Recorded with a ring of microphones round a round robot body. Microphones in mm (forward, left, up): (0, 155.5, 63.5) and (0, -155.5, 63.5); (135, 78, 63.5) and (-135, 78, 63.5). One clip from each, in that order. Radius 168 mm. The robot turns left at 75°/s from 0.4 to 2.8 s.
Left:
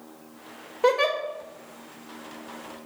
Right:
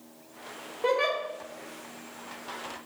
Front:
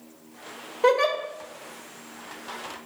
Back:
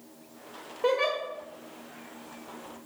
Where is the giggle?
45° left, 1.5 m; by 1.2 s 20° left, 1.5 m.